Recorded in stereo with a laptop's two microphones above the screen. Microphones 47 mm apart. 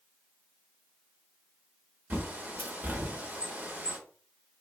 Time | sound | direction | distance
2.1 | a bird | 35° right (ahead or behind) | 0.6 m